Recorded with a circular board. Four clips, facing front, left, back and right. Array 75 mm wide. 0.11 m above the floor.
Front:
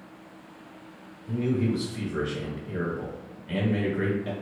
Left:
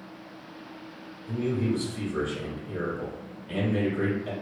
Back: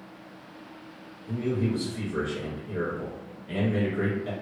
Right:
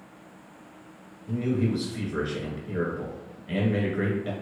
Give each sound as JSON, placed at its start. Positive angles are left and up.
{"t": 1.3, "sound": "a man speaking", "azimuth_deg": -70, "distance_m": 1.3}